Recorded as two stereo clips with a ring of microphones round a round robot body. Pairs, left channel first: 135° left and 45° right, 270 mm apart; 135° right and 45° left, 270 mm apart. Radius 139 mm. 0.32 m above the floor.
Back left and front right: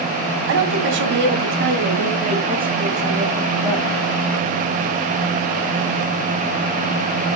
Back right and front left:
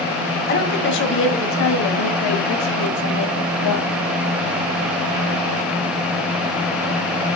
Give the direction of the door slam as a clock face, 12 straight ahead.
No door slam in this recording.